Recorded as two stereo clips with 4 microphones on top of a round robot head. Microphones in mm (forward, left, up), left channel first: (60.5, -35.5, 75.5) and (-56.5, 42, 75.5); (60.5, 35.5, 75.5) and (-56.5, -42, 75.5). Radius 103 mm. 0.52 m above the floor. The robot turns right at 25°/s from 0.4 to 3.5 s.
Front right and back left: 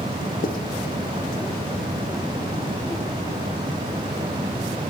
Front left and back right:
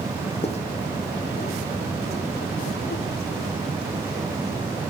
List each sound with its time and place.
0.4 s writing: 10° right, 0.7 m